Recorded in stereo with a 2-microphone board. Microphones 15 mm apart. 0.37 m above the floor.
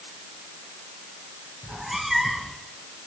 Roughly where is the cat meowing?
Centre.